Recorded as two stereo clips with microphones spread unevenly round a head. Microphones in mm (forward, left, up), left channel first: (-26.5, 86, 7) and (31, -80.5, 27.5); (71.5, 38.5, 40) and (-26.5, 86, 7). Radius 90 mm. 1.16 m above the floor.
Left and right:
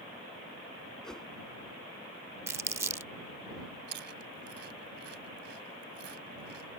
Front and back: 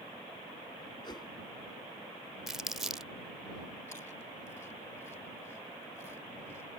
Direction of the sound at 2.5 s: 65° right.